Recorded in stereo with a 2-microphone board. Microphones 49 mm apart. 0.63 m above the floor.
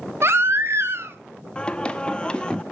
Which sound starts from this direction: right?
A baby crying, at 0.2 s.